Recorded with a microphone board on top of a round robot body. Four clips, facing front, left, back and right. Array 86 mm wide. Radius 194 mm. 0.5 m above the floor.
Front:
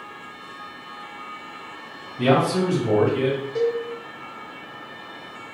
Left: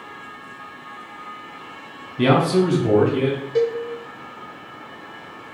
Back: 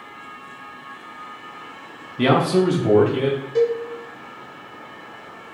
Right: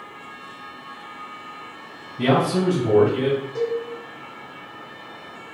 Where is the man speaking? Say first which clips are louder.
Left 3 dB, back 2 dB; 140° left, 0.8 m; by 3.4 s 170° left, 1.2 m.